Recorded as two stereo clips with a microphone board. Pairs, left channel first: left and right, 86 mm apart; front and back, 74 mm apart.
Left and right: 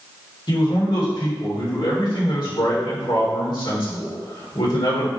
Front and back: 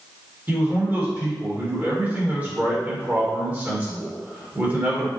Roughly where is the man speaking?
Behind left.